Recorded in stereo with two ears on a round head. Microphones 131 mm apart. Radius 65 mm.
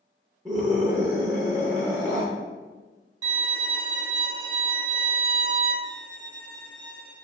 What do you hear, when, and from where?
0.5 s a scream: 20° right (ahead or behind), 0.7 m
3.2 s a violin: 25° right (ahead or behind), 0.9 m
5.8 s a violin: 60° right (ahead or behind), 1.2 m